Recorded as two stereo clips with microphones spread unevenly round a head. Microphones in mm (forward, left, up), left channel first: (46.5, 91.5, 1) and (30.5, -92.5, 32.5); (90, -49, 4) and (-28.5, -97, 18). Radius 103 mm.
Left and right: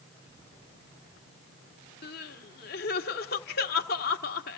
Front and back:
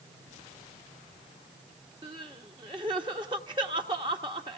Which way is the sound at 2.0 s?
135° left.